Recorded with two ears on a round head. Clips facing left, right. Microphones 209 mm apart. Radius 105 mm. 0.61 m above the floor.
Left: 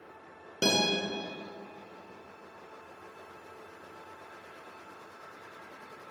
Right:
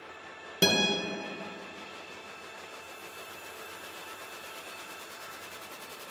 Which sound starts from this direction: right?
A guitar, at 0.6 s.